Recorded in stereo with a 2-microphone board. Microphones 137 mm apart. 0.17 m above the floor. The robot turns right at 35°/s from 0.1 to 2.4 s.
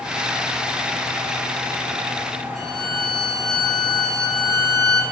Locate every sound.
2.5 s a violin: centre (ahead or behind), 1.7 m